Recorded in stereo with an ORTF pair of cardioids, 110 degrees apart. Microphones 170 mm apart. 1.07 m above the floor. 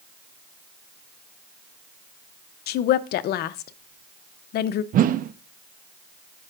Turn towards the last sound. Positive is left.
turn(degrees=-55)